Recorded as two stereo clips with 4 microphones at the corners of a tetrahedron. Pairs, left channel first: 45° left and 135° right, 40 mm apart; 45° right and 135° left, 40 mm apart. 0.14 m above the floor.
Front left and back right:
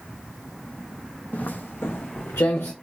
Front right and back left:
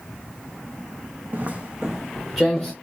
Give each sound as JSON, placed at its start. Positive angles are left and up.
{"t": 1.3, "sound": "footsteps", "azimuth_deg": 95, "distance_m": 0.5}